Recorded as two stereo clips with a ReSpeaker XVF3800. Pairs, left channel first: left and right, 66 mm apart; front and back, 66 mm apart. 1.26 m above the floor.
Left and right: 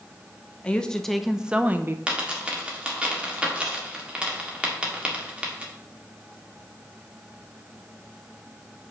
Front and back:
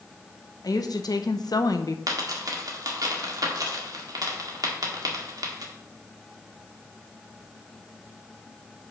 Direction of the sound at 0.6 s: 15° left.